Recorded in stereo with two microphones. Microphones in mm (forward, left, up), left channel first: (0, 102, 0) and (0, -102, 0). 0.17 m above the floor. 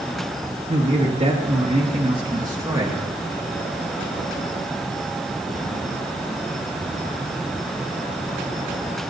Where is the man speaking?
35° right (ahead or behind), 3 m; by 3.0 s 10° right (ahead or behind), 2.0 m.